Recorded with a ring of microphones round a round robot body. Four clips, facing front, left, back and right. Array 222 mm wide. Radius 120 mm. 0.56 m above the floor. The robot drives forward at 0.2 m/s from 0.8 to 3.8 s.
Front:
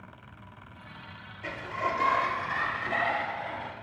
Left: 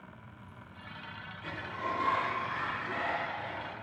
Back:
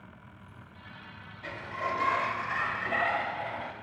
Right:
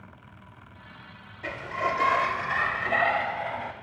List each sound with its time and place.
1.4 s a sliding door: 80° right, 0.7 m; by 3.7 s 115° right, 0.8 m